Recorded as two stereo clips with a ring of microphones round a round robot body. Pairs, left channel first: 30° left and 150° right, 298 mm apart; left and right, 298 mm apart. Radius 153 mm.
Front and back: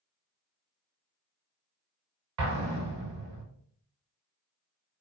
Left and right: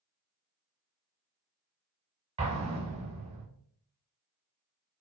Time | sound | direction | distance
2.4 | an explosion | 155° right | 0.7 m